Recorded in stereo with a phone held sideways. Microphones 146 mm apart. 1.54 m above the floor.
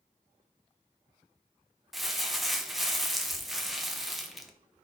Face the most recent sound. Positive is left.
turn(degrees=0)  # may be behind; listen again after turning